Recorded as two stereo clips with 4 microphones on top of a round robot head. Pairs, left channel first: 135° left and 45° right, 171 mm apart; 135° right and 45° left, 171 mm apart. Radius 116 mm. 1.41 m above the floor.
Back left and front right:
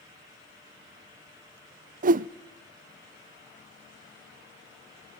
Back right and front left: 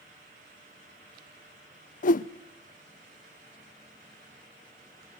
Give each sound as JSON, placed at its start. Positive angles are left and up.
{"t": 2.0, "sound": "a whoosh", "azimuth_deg": -90, "distance_m": 0.5}